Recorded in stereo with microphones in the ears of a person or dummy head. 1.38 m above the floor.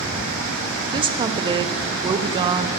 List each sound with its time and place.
0.9 s a woman speaking: 20° right (ahead or behind), 0.6 m